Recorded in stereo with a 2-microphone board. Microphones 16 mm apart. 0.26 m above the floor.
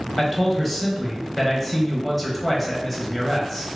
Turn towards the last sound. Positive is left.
turn(degrees=5)  # may be behind; listen again after turning